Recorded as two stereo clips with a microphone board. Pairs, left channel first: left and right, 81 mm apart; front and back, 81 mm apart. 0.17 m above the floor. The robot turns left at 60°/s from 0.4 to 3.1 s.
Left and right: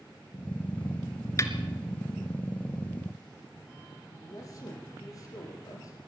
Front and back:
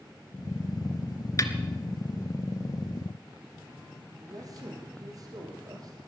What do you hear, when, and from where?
1.4 s a snare drum: 45° left, 1.7 m; by 1.5 s 35° left, 1.7 m
4.1 s a man speaking: 140° left, 6 m